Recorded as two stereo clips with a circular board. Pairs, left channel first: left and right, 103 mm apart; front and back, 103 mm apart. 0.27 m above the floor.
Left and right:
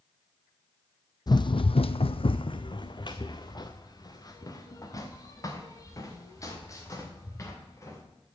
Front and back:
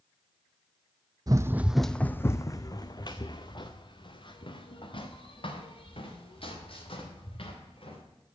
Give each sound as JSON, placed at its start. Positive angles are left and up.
{"t": 1.3, "sound": "running footsteps", "azimuth_deg": 135, "distance_m": 0.6}